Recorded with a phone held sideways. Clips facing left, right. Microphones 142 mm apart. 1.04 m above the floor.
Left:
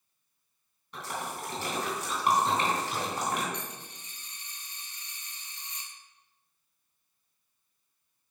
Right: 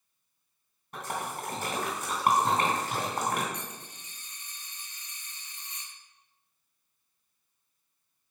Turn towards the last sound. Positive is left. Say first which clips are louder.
# left 1 dB
turn(degrees=30)  # may be behind; listen again after turning